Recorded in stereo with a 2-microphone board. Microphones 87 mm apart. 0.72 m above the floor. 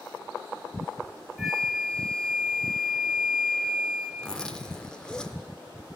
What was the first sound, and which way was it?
A flute, centre (ahead or behind).